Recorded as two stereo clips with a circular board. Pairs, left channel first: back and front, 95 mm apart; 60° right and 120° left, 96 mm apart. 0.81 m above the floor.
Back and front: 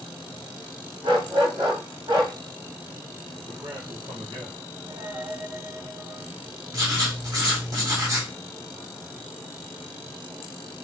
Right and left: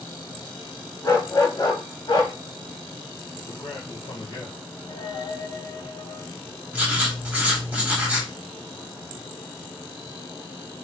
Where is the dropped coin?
65° right, 1.8 m.